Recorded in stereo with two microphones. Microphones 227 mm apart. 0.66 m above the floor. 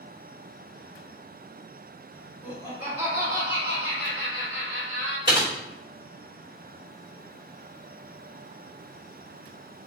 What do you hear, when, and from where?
2.4 s laughter: 10° right (ahead or behind), 1.2 m; by 5.2 s 60° right (ahead or behind), 2.5 m
5.3 s typing on a keyboard: 20° right (ahead or behind), 1.4 m